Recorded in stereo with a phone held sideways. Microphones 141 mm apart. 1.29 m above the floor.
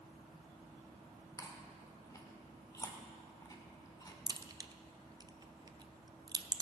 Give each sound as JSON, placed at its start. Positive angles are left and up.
{"t": 1.4, "sound": "chewing", "side_deg": 25, "distance_m": 1.3}
{"t": 4.3, "sound": "a crack", "side_deg": -30, "distance_m": 0.5}